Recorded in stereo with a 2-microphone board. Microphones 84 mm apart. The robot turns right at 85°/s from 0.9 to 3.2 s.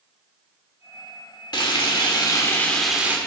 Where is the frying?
65° left, 1.4 m; by 3.2 s 155° right, 1.4 m.